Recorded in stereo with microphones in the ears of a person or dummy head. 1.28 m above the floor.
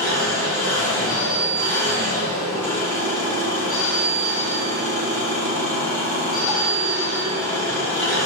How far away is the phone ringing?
About 1.1 m.